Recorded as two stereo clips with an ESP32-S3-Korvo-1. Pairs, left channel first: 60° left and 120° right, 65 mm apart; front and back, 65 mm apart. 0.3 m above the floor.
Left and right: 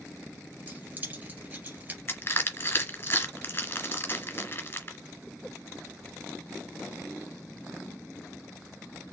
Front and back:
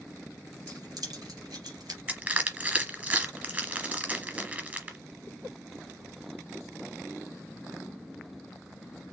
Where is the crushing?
115° left, 2 m.